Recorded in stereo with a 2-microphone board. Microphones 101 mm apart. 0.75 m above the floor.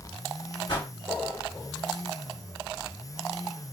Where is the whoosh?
55° left (ahead or behind), 1.6 m.